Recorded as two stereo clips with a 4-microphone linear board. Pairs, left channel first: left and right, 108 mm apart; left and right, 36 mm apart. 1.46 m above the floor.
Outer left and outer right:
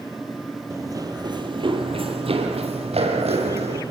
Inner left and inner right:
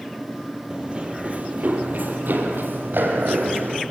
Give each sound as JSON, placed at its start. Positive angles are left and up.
{"t": 0.7, "sound": "running footsteps", "side_deg": -25, "distance_m": 2.5}